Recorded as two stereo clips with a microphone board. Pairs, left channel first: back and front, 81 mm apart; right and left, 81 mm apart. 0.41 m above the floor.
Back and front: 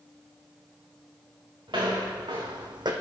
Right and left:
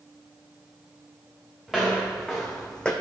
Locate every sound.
1.7 s footsteps: straight ahead, 2.5 m; by 2.9 s 15° right, 1.0 m